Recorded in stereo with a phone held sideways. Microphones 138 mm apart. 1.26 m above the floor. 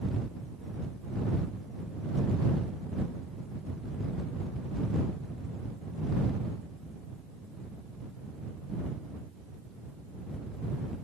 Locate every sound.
Only background noise.